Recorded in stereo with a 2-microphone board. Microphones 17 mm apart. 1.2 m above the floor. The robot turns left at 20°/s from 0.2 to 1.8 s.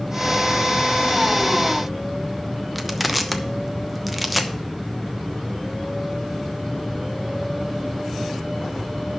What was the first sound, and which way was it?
Crushing, 5° right (ahead or behind).